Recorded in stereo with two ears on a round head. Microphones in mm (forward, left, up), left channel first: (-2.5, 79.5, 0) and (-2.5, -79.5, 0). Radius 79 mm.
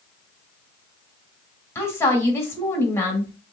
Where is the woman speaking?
15° left (ahead or behind), 1.6 m.